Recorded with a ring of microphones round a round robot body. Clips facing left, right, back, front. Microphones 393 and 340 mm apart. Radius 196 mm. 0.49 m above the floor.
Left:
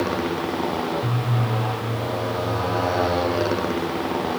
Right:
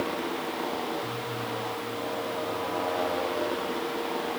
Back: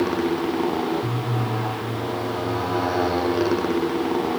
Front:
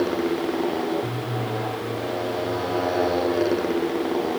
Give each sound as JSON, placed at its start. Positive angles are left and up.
{"t": 0.0, "sound": "a motorcycle", "azimuth_deg": 110}